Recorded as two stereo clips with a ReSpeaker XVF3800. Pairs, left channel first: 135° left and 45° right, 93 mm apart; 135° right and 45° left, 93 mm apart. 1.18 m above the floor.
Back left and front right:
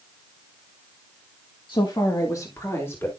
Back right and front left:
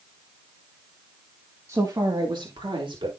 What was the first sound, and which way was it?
A woman speaking, 105° left.